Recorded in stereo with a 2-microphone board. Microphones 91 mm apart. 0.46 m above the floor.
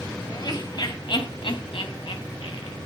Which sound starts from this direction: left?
Laughter, at 0.3 s.